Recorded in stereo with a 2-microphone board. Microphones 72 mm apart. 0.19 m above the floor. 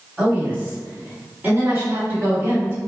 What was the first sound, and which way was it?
A woman speaking, 15° right (ahead or behind).